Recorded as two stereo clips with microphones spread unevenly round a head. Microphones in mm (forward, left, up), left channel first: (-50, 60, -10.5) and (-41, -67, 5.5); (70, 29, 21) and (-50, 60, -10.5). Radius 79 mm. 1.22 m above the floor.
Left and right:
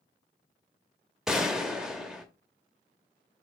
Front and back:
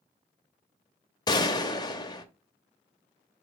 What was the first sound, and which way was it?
A gunshot, 10° right.